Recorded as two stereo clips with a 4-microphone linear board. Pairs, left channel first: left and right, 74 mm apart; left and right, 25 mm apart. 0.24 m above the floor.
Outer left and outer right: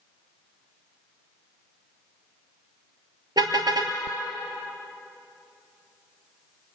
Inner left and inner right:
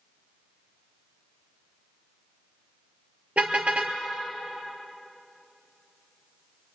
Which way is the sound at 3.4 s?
75° right (ahead or behind).